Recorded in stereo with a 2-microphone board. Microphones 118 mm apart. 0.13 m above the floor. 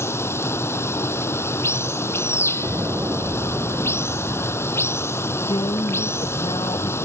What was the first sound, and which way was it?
Running water, 20° left (ahead or behind).